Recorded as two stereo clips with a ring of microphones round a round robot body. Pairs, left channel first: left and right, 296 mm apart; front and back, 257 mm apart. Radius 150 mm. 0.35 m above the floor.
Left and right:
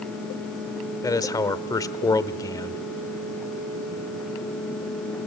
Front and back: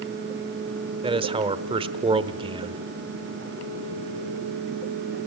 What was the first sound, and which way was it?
A man speaking, 150° left.